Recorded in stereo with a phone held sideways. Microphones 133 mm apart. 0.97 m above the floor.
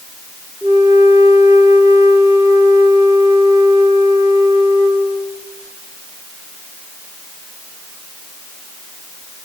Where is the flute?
20° right (ahead or behind), 0.9 m.